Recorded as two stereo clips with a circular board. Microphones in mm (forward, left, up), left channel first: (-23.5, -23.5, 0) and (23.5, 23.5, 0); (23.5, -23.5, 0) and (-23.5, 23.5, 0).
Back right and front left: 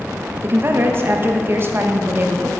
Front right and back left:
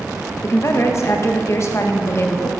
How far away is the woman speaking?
About 1.1 m.